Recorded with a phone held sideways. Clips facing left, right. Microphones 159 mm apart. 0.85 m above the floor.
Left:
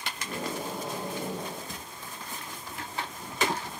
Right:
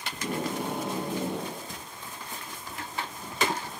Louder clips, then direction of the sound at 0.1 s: Right 6 dB; 65° right (ahead or behind).